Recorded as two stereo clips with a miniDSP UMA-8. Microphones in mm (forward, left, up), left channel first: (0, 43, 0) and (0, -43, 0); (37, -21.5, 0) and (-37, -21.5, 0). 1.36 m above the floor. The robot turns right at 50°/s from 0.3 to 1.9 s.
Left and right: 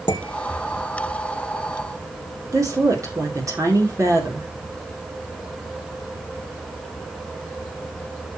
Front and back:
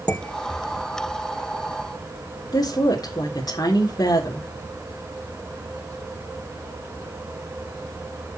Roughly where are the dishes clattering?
Left.